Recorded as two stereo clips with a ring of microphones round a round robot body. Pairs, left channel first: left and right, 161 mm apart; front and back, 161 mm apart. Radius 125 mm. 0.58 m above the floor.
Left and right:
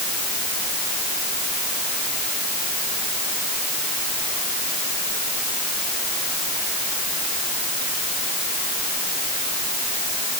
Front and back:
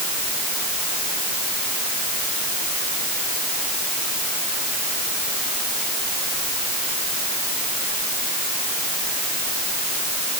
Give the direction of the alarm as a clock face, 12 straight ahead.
I don't hear an alarm.